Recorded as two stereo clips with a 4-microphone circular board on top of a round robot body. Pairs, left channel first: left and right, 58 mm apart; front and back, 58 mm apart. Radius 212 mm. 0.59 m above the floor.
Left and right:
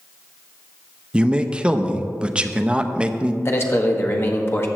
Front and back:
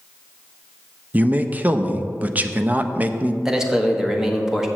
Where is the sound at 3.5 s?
100° left, 1.5 m.